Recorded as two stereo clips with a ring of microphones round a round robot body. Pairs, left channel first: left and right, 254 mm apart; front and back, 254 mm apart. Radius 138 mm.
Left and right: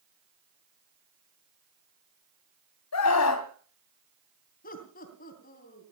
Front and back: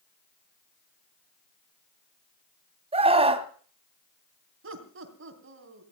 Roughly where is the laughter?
Behind left.